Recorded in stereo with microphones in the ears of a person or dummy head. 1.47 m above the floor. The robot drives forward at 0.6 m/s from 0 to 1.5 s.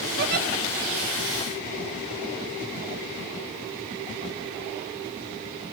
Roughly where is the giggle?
Right.